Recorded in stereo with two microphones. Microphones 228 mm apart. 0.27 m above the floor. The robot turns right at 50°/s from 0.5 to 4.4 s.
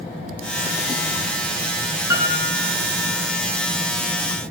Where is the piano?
165° right, 1.5 m; by 2.7 s 135° right, 1.5 m.